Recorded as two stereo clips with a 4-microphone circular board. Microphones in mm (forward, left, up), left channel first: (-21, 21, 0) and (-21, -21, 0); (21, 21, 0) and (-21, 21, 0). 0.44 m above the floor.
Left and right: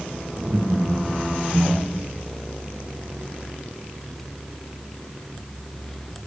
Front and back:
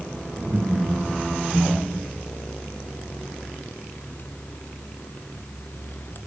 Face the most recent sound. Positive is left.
turn(degrees=-95)